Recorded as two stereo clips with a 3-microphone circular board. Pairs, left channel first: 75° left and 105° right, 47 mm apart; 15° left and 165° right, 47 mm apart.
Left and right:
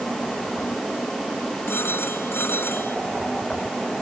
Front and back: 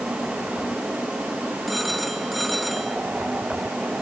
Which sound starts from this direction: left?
A phone ringing, at 1.7 s.